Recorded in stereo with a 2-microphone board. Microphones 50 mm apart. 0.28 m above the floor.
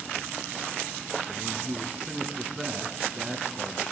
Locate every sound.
1.3 s a man speaking: 15° right (ahead or behind), 2.5 m